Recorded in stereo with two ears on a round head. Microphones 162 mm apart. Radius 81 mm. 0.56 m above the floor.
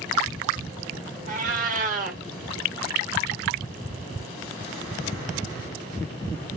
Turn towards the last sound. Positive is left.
turn(degrees=-45)  # may be behind; listen again after turning